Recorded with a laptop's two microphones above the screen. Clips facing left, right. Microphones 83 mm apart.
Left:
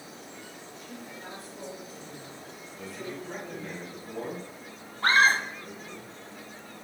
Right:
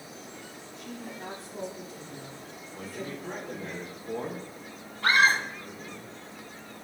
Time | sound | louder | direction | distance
0.8 | a woman speaking | right 5 dB | 80° right | 3 m
2.7 | a man speaking | right 1 dB | 50° right (ahead or behind) | 3 m
5.0 | a scream | left 1 dB | 30° left (ahead or behind) | 2.5 m